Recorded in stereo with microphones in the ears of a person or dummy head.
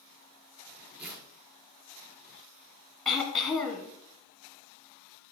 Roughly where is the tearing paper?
Centre.